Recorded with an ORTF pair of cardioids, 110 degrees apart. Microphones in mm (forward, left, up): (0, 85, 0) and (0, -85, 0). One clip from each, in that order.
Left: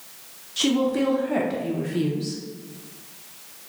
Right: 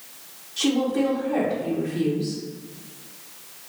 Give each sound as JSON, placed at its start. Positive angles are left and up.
{"t": 0.6, "sound": "a woman speaking", "azimuth_deg": 45, "distance_m": 0.9}